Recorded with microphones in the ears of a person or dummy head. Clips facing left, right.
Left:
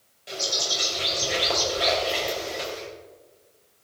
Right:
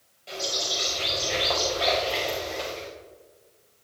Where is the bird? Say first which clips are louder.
Even; 15° left (ahead or behind), 4.5 m.